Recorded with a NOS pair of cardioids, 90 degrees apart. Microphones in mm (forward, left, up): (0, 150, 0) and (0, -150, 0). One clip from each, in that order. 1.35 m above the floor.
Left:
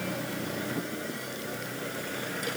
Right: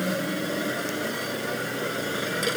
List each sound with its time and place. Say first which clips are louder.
0.0 s a machine running: right 6 dB; 50° right